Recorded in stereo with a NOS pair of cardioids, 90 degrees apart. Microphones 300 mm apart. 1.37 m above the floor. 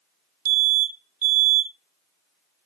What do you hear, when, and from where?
0.5 s an alarm: 50° right, 1.6 m